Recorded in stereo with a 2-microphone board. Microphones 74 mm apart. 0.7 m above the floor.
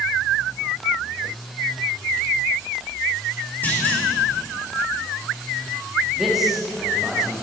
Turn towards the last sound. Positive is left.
turn(degrees=-5)  # may be behind; listen again after turning